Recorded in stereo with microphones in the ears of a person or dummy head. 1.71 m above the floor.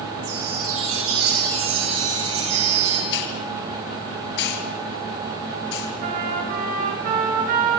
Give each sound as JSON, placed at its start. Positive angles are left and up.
{"t": 0.2, "sound": "a chime", "side_deg": -85, "distance_m": 8.5}
{"t": 3.1, "sound": "a hiss", "side_deg": 65, "distance_m": 4.5}
{"t": 6.0, "sound": "a trumpet", "side_deg": -50, "distance_m": 7.0}